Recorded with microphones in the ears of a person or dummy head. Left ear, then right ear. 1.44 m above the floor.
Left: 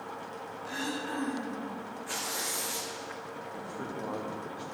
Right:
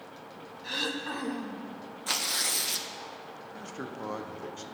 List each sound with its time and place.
0.6 s throat clearing: 60° right (ahead or behind), 0.8 m
2.1 s tearing paper: 65° right (ahead or behind), 0.8 m
3.5 s a man speaking: 65° right (ahead or behind), 0.8 m